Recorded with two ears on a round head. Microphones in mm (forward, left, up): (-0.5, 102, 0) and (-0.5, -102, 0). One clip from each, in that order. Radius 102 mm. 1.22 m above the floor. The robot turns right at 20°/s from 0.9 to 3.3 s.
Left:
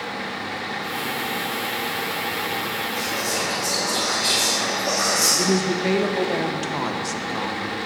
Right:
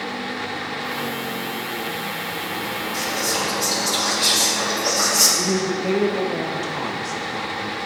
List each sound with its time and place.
2.9 s whispering: 75° right (ahead or behind), 3 m; by 5.3 s 80° right, 3 m
5.4 s a woman speaking: 20° left (ahead or behind), 0.8 m